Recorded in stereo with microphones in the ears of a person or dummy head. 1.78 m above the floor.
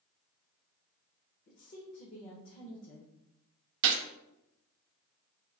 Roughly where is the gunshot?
Right.